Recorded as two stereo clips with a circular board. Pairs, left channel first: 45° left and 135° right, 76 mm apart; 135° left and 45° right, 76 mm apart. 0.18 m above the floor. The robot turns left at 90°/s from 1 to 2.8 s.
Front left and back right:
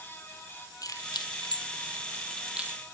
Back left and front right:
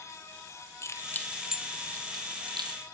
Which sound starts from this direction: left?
Keys jangling, at 0.8 s.